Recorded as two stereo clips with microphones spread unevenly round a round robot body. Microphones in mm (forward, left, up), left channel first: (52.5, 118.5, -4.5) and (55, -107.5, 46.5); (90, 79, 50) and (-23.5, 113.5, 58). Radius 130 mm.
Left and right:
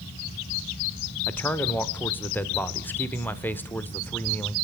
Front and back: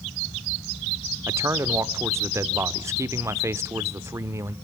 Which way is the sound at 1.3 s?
125° left.